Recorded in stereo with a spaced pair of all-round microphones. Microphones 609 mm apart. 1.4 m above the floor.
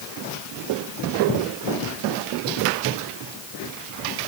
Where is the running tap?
I don't hear a running tap.